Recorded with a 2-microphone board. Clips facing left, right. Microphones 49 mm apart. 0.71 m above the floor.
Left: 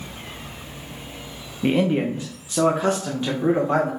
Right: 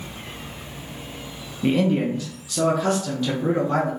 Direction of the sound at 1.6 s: 15° left (ahead or behind).